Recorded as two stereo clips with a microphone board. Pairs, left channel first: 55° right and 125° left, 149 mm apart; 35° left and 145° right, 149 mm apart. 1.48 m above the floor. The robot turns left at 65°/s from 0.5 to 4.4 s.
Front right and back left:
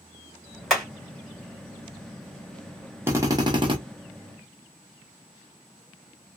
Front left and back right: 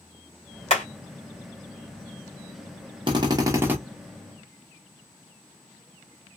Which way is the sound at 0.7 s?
35° left.